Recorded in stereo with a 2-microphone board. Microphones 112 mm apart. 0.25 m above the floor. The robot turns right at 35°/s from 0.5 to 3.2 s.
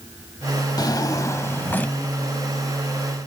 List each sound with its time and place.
0.8 s a drawer: 120° left, 0.6 m; by 2.0 s 165° left, 0.6 m